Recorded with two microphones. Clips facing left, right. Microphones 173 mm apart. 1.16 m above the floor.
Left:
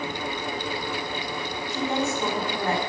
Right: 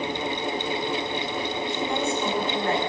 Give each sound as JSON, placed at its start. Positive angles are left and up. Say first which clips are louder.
{"t": 1.7, "sound": "a woman speaking", "louder": "left 2 dB", "side_deg": 40, "distance_m": 7.5}